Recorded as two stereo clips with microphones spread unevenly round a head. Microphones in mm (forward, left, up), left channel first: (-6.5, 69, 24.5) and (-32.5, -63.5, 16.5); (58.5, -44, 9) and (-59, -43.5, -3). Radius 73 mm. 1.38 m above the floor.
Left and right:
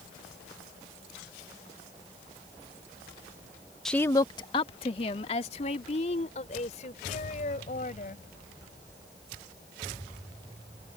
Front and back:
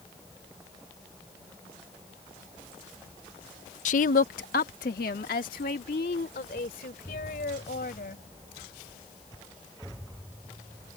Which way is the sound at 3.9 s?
10° right.